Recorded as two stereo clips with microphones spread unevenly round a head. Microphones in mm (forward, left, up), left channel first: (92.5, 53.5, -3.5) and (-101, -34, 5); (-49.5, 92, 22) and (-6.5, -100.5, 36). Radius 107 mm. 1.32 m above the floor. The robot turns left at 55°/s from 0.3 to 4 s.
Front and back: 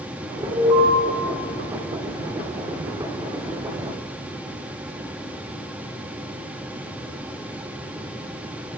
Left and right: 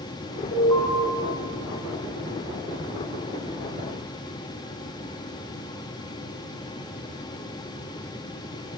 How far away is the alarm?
About 7.5 m.